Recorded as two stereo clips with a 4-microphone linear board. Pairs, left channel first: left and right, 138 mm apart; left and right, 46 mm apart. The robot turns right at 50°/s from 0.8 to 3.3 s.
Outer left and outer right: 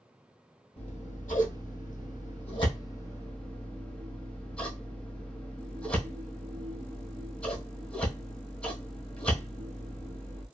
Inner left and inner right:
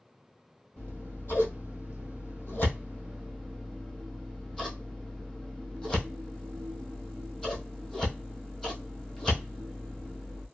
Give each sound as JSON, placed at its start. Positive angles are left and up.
{"t": 0.8, "sound": "scissors", "side_deg": 45, "distance_m": 1.6}